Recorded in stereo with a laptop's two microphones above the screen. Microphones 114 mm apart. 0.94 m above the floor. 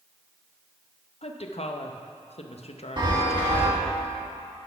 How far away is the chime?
About 1.5 m.